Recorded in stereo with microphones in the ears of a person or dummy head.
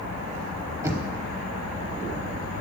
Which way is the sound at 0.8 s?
15° right (ahead or behind).